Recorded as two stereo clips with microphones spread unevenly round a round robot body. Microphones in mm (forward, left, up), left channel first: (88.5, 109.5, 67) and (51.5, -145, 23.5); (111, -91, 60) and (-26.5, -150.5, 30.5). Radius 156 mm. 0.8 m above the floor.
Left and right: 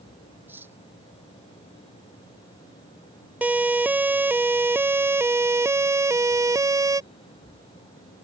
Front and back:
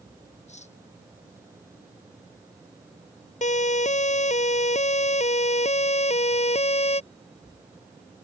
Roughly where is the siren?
Ahead.